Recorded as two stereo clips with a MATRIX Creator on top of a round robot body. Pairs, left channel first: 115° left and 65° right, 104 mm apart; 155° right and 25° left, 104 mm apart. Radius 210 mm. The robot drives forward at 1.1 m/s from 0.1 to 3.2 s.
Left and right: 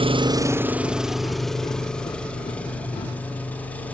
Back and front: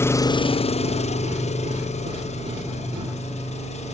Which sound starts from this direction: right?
An engine running, at 0.0 s.